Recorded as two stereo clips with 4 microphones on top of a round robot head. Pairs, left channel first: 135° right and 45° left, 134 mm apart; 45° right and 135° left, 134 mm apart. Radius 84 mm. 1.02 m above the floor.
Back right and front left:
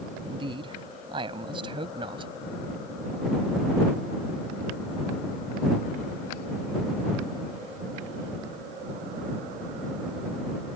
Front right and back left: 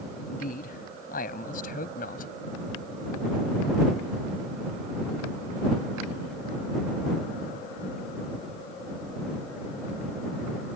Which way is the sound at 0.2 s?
15° right.